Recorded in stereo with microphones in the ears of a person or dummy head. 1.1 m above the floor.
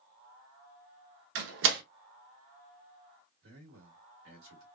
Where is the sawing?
No sawing in this recording.